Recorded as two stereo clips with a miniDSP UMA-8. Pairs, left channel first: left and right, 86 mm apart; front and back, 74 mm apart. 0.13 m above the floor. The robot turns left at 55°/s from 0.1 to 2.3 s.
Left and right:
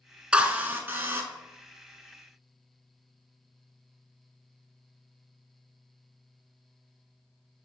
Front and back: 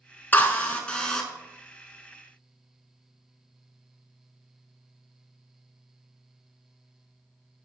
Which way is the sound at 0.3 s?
25° right.